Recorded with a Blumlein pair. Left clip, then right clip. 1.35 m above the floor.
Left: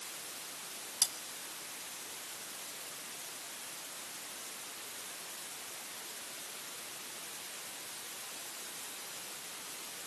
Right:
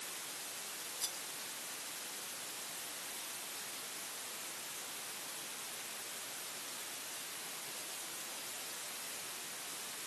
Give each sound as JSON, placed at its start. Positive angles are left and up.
{"t": 1.0, "sound": "cutlery clinking", "azimuth_deg": 35, "distance_m": 2.5}